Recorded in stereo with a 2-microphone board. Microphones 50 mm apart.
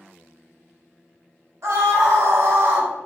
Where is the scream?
70° right (ahead or behind), 1.3 m.